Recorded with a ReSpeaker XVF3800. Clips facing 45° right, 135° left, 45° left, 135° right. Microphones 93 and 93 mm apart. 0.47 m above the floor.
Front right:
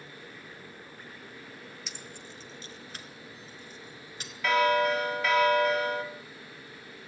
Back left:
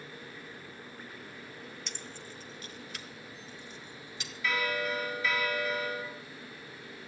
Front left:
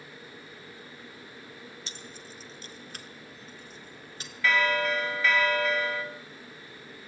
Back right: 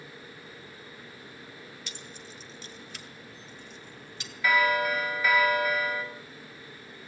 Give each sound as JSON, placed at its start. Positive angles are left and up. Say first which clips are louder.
{"t": 1.9, "sound": "keys jangling", "louder": "even, even", "azimuth_deg": 40, "distance_m": 0.6}
{"t": 4.4, "sound": "a bell", "louder": "front right 9 dB, back right 1 dB", "azimuth_deg": -60, "distance_m": 1.6}